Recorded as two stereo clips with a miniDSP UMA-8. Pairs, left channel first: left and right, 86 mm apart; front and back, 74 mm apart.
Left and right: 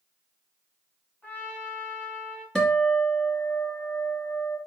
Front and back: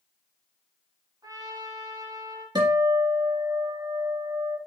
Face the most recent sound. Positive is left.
turn(degrees=170)